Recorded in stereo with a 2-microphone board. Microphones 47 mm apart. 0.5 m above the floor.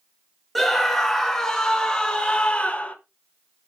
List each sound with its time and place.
0.6 s a scream: centre (ahead or behind), 3 m; by 3.0 s 30° left (ahead or behind), 1.8 m